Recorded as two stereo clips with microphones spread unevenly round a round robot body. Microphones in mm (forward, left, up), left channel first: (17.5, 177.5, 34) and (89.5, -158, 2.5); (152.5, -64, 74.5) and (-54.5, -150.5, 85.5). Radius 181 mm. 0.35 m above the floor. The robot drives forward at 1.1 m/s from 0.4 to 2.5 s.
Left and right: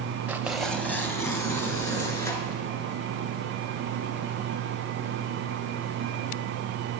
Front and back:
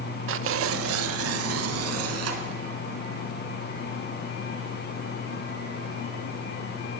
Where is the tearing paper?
160° right, 0.6 m; by 2.6 s 175° right, 3 m.